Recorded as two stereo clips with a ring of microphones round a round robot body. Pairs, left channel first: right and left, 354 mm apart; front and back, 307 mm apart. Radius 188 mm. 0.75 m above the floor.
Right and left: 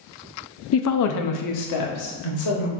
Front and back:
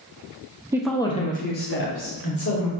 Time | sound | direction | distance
0.7 | a woman speaking | 105° right | 0.7 m